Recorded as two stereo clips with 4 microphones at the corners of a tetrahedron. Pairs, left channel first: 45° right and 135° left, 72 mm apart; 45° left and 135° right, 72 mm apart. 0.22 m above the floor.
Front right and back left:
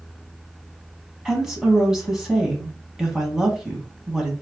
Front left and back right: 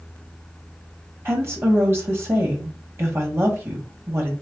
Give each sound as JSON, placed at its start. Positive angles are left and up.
{"t": 1.2, "sound": "a woman speaking", "azimuth_deg": -145, "distance_m": 1.4}